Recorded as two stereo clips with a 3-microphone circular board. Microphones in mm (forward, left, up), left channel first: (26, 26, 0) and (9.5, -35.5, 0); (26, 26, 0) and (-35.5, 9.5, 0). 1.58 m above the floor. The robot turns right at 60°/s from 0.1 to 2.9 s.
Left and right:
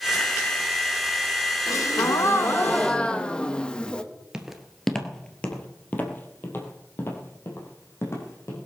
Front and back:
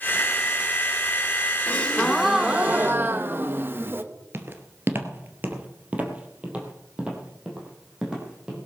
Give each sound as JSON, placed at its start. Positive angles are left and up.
{"t": 1.7, "sound": "a gasp", "azimuth_deg": 75, "distance_m": 1.2}
{"t": 4.3, "sound": "footsteps", "azimuth_deg": -175, "distance_m": 1.9}